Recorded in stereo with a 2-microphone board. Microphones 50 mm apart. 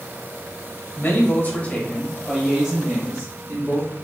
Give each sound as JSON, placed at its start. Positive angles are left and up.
{"t": 1.0, "sound": "a man speaking", "side_deg": 45, "distance_m": 1.0}